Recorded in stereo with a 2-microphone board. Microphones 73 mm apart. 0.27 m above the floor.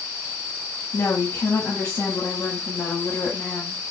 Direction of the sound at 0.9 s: 40° left (ahead or behind).